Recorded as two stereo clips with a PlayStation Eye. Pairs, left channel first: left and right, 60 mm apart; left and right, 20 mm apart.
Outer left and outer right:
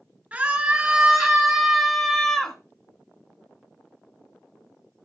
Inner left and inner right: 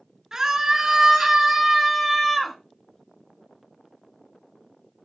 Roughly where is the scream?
Right.